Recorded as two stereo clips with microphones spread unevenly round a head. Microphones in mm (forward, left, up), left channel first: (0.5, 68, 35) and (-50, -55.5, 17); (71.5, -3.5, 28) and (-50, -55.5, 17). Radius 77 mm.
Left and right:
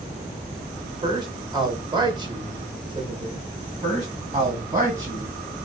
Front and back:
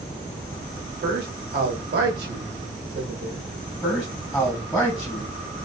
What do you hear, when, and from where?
1.0 s a man speaking: 170° right, 0.9 m
3.8 s a man speaking: 65° right, 1.7 m